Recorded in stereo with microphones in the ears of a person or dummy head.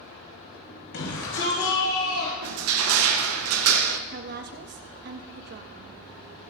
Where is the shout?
75° left (ahead or behind), 5.5 m; by 2.3 s 90° left, 7.5 m.